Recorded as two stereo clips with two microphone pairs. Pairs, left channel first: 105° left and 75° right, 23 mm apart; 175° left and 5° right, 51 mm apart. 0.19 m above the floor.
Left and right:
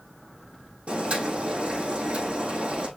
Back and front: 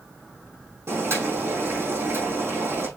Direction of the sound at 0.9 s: 40° right.